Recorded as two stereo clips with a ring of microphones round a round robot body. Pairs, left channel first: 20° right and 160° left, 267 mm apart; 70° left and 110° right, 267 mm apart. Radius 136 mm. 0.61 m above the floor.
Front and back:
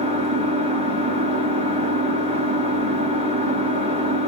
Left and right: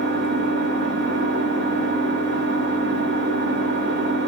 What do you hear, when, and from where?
0.0 s an engine running: 140° right, 0.8 m